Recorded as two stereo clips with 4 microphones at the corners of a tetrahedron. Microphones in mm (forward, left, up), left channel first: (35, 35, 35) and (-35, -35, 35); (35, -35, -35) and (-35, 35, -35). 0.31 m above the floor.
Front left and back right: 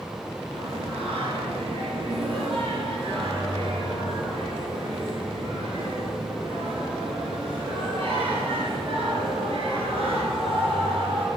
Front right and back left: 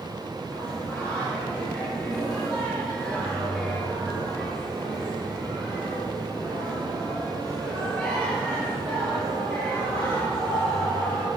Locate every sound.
0.5 s singing: 125° right, 3.5 m